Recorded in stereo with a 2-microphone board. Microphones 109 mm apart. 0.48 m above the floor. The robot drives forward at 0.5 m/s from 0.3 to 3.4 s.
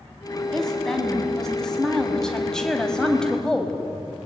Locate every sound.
0.5 s a woman speaking: 5° left (ahead or behind), 4.5 m